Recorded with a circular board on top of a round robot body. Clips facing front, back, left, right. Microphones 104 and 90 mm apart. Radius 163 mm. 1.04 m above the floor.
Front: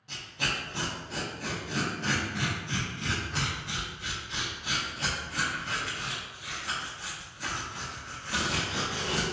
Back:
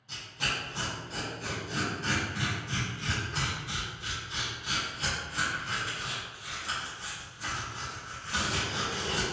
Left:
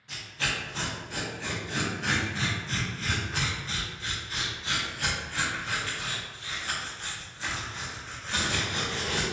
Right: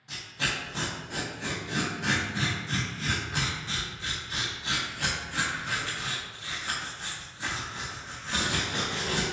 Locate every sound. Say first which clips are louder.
0.1 s tearing paper: front 1 dB, even; 20° right, 0.5 m